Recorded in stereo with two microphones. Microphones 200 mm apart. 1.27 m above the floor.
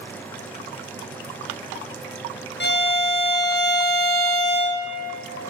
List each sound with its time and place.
2.6 s a violin: 60° left (ahead or behind), 0.5 m